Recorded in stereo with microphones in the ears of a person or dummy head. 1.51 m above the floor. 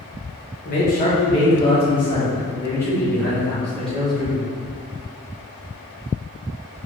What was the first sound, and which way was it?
A man speaking, 45° left (ahead or behind).